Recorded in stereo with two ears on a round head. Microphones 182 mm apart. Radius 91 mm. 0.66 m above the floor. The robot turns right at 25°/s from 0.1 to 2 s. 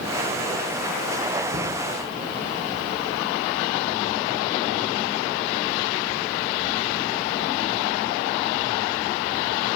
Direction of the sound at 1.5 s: 55° right (ahead or behind).